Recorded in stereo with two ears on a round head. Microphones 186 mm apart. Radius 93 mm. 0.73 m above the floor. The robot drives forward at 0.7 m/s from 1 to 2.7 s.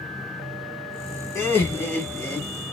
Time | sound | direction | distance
1.4 | laughter | 15° left (ahead or behind) | 1.7 m